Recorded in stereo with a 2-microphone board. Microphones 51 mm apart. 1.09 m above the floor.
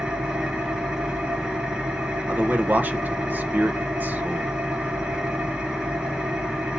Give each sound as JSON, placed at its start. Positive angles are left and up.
{"t": 0.0, "sound": "an engine running", "side_deg": -15, "distance_m": 1.7}
{"t": 2.3, "sound": "a man speaking", "side_deg": -35, "distance_m": 0.9}